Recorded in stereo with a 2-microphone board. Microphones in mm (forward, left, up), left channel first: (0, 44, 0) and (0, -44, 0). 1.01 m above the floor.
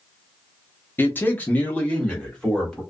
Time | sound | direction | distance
1.0 | a man speaking | 25° left (ahead or behind) | 0.8 m